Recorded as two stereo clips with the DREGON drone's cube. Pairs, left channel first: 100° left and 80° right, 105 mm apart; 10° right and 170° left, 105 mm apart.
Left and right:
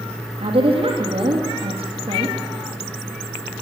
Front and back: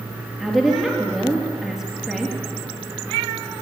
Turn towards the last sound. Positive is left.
turn(degrees=-95)